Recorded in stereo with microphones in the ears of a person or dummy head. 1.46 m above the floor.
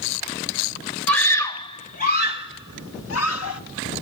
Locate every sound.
1.1 s a scream: 5° left (ahead or behind), 2.5 m; by 3.6 s 85° left, 3 m